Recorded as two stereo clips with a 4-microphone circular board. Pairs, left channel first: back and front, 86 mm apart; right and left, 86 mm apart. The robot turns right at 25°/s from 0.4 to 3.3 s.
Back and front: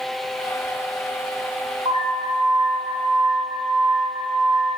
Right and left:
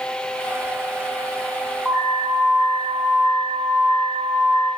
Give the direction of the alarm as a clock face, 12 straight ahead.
12 o'clock.